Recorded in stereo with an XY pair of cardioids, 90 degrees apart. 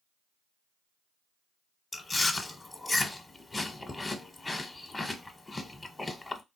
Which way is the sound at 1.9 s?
20° left.